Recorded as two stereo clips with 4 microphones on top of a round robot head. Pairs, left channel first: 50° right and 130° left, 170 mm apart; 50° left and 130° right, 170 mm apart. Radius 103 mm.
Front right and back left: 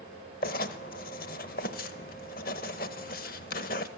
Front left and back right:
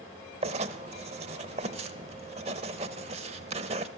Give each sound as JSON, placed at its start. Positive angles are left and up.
{"t": 0.4, "sound": "writing", "azimuth_deg": -80, "distance_m": 0.6}